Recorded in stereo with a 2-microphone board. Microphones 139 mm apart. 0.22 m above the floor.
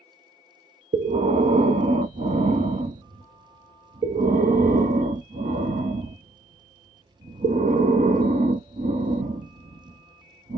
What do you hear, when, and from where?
0.9 s breathing: 70° right (ahead or behind), 0.5 m